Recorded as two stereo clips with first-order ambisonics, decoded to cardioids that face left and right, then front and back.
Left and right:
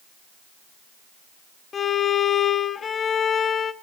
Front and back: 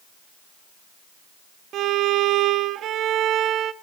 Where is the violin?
150° left, 0.5 m.